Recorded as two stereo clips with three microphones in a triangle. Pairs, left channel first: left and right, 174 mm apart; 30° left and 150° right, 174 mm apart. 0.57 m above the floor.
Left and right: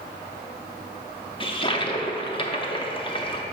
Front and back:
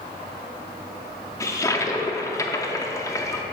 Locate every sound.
1.4 s a toilet flushing: 80° left, 0.5 m